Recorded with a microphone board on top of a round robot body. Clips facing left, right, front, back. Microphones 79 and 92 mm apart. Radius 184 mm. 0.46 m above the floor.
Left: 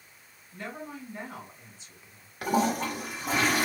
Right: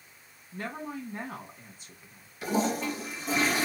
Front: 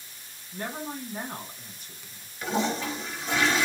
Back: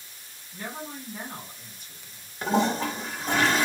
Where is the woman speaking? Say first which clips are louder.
Right 3 dB, front 3 dB; 55° right, 2 m.